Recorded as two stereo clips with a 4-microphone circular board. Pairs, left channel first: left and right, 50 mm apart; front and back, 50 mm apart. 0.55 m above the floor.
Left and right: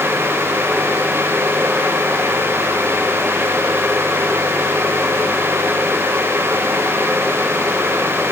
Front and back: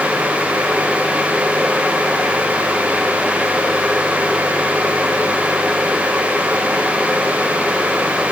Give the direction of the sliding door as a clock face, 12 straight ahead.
No sliding door in this recording.